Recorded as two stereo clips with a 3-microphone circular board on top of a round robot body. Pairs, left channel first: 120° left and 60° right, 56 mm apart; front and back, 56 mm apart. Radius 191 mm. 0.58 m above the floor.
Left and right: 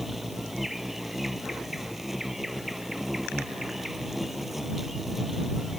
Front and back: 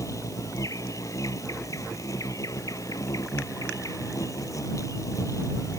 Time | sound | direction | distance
0.0 | an insect | 25° left | ?